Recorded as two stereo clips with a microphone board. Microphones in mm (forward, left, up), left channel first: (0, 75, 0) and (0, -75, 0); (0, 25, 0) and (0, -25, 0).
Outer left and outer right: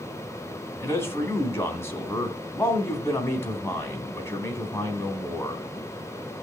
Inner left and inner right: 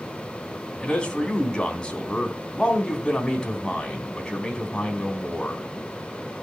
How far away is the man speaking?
About 3 m.